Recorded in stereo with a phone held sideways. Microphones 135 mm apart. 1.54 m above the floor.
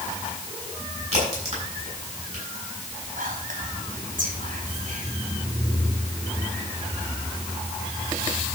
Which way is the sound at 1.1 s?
50° right (ahead or behind).